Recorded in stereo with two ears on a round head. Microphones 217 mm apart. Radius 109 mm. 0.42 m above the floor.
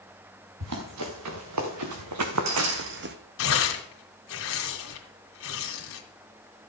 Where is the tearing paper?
60° left (ahead or behind), 2.5 m.